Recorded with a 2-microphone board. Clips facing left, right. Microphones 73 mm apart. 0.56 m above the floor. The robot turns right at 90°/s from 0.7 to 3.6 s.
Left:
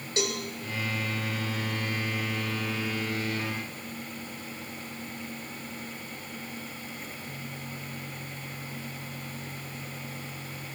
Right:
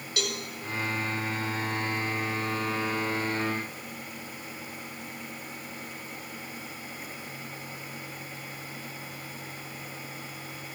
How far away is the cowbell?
About 2.5 m.